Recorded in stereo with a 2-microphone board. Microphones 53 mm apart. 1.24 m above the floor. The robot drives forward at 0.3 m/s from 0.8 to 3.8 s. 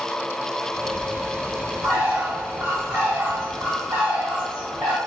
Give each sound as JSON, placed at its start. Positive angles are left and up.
{"t": 1.8, "sound": "a bird", "side_deg": -60, "distance_m": 1.3}